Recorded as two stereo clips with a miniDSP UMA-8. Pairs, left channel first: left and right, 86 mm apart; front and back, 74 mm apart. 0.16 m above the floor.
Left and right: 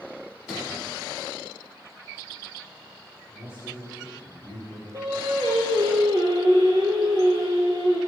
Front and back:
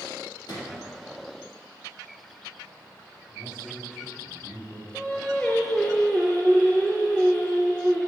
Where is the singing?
75° right, 2.5 m.